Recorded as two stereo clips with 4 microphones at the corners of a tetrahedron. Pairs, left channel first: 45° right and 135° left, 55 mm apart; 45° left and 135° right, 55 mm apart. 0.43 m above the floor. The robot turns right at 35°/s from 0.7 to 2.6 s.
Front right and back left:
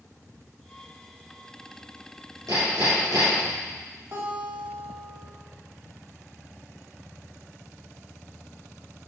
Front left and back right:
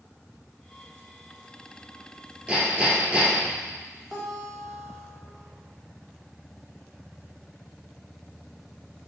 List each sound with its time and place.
2.5 s hammering: 150° left, 3 m; by 3.6 s 155° left, 3 m
4.1 s a guitar: 135° left, 2.5 m